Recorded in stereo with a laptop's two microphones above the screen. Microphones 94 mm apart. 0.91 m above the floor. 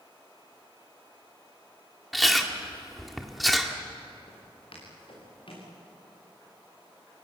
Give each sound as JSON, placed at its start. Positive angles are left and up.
{"t": 2.1, "sound": "chewing", "side_deg": 0, "distance_m": 2.0}
{"t": 4.3, "sound": "footsteps", "side_deg": 75, "distance_m": 7.5}